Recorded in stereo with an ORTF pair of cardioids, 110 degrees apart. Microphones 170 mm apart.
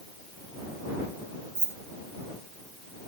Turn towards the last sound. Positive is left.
turn(degrees=-15)